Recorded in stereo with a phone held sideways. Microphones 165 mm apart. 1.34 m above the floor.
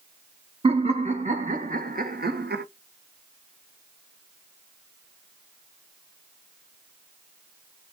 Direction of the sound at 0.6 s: 40° right (ahead or behind).